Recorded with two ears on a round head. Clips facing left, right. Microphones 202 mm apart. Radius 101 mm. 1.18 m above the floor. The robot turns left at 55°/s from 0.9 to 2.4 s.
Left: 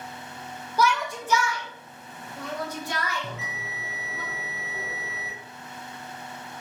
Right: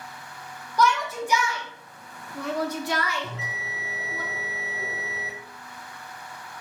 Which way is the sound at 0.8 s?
5° left (ahead or behind).